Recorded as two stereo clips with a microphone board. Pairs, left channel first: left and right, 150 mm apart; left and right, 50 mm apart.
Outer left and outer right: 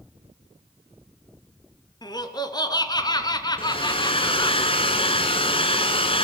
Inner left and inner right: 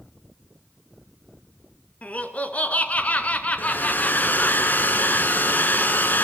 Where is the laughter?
30° left (ahead or behind), 1.9 m.